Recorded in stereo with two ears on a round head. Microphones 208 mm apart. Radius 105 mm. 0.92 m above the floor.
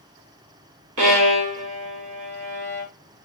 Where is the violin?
65° right (ahead or behind), 1.8 m.